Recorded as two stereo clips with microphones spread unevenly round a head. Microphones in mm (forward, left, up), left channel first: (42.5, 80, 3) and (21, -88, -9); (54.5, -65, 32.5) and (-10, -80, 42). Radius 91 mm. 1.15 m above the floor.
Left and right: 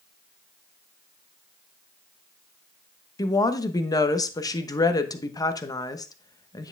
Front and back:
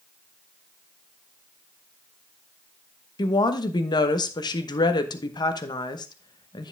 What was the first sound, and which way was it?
A woman speaking, 10° left.